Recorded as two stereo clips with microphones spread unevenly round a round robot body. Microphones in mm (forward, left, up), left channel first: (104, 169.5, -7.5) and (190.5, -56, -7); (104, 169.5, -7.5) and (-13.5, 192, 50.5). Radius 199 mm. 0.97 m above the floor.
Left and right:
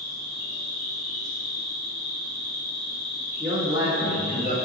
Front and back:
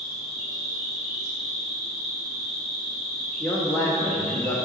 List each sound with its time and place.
0.0 s an insect: 155° right, 1.1 m
3.4 s a man speaking: 135° right, 0.9 m